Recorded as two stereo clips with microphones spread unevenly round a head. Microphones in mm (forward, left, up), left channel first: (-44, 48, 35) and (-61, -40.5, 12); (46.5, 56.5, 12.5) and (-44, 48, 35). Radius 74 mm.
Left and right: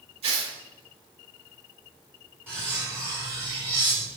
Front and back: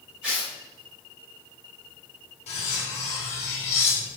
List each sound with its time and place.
0.2 s tearing paper: 90° right, 4 m
2.5 s cutlery clinking: 20° right, 2.5 m